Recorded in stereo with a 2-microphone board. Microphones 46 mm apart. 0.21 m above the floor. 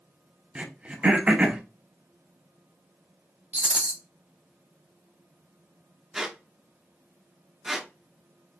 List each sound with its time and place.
0.6 s throat clearing: 25° right (ahead or behind), 0.8 m
3.5 s a rattle: 25° right (ahead or behind), 0.7 m
6.1 s a squeak: 10° right (ahead or behind), 0.8 m